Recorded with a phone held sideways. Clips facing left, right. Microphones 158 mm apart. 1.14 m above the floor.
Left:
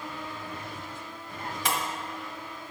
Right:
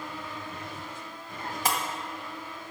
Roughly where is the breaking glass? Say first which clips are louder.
Right 1 dB; right.